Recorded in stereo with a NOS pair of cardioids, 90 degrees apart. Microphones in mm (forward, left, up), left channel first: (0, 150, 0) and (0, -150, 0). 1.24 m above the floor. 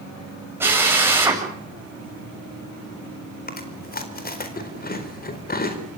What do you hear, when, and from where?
0.6 s a drill: 5° right, 8 m
3.5 s chewing: 30° left, 4 m